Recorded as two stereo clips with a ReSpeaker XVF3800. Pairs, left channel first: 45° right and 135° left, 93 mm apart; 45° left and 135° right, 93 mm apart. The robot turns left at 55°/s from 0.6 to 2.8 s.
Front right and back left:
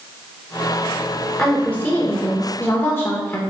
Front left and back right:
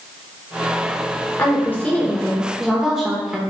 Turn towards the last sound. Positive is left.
turn(degrees=-55)